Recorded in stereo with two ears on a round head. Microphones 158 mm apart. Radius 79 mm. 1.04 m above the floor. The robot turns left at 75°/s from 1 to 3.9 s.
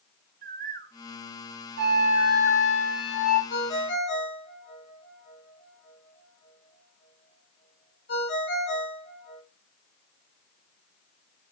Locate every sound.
0.4 s a bird: 50° right (ahead or behind), 0.8 m; by 2.7 s 15° left (ahead or behind), 0.8 m
1.8 s a flute: 115° right, 4.5 m; by 3.4 s 120° left, 4.5 m
3.5 s a ringtone: 85° left, 5 m; by 9.4 s 65° left (ahead or behind), 5 m